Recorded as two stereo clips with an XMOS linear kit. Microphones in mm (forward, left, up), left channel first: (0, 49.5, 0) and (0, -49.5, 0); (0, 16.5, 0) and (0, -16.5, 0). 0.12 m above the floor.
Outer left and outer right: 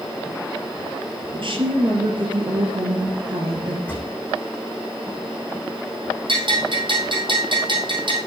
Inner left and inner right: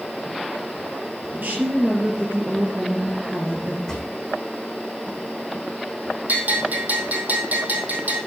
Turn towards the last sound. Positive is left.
turn(degrees=-55)  # may be behind; listen again after turning